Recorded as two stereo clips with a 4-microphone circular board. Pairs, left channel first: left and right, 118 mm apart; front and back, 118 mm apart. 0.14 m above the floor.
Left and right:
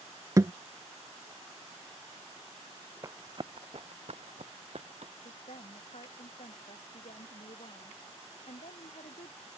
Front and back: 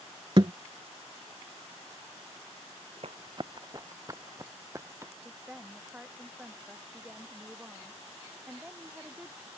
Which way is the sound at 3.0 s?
150° right.